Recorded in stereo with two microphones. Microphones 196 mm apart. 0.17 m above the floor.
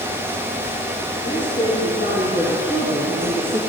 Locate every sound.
1.2 s a woman speaking: 70° left (ahead or behind), 7 m; by 3.6 s 65° left (ahead or behind), 3.5 m